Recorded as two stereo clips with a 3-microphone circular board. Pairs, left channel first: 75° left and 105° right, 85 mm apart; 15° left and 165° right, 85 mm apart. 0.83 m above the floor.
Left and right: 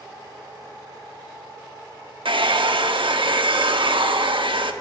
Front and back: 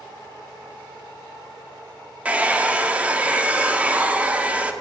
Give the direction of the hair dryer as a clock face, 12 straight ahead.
3 o'clock.